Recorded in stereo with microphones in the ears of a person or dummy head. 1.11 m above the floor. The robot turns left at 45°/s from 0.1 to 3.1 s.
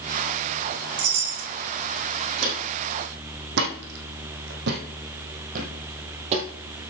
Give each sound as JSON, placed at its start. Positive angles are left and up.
{"t": 1.0, "sound": "a chime", "side_deg": -85, "distance_m": 4.0}
{"t": 2.4, "sound": "footsteps", "side_deg": -65, "distance_m": 3.0}